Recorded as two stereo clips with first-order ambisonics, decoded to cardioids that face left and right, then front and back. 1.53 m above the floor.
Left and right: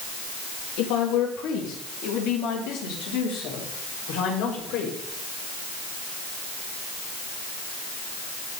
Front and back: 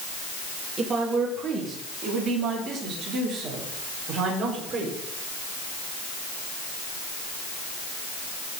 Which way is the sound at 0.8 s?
115° left.